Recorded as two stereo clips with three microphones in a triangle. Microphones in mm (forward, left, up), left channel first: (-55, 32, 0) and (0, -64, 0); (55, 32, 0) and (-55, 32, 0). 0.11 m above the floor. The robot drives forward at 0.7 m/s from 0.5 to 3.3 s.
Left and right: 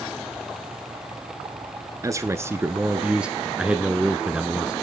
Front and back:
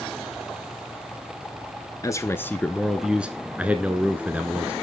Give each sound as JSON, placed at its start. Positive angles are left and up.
{"t": 2.0, "sound": "a man speaking", "azimuth_deg": -30, "distance_m": 1.3}